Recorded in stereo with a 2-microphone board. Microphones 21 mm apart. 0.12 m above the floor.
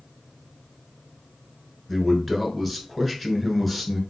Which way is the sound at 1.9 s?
Centre (ahead or behind).